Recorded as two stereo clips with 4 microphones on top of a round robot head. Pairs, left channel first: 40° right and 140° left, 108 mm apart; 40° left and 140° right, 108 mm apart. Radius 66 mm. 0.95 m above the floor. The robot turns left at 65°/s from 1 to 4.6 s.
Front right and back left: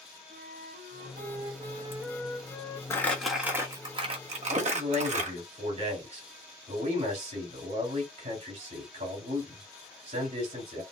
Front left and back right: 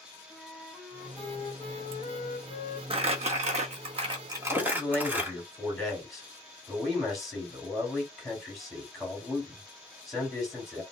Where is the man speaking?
135° left, 3.5 m; by 10.8 s 130° left, 3.5 m.